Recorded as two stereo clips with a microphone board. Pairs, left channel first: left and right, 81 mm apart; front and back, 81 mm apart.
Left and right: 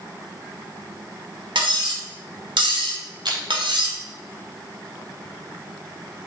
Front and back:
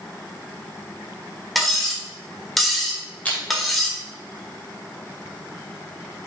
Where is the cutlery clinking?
90° right, 1.5 m.